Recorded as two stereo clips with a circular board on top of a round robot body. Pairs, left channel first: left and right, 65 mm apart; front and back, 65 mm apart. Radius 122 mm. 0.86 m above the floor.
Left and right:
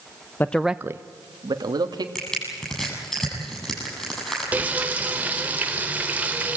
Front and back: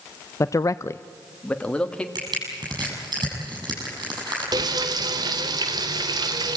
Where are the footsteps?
I don't hear footsteps.